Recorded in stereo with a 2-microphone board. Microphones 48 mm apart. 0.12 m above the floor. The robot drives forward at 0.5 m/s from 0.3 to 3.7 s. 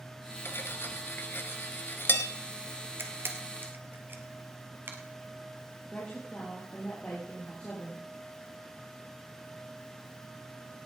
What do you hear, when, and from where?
0.5 s cutlery clinking: 50° left (ahead or behind), 1.4 m; by 2.3 s 45° left (ahead or behind), 1.5 m
3.0 s a camera shutter: 50° right (ahead or behind), 1.9 m; by 5.0 s 45° right (ahead or behind), 2 m
5.9 s a woman speaking: 25° left (ahead or behind), 4 m